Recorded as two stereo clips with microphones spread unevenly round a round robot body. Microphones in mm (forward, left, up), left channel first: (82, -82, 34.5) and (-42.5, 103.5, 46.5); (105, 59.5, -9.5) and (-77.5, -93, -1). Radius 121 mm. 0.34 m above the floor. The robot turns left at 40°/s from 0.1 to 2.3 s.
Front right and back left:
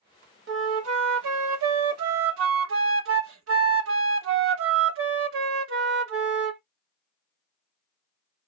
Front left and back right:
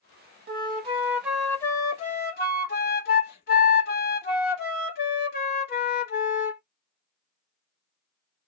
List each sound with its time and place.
0.5 s a flute: 165° left, 0.7 m; by 6.6 s 95° left, 0.7 m